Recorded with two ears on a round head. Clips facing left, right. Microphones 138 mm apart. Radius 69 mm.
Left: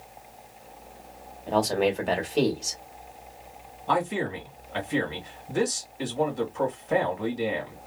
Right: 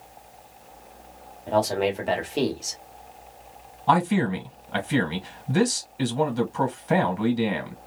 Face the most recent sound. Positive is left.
turn(degrees=-85)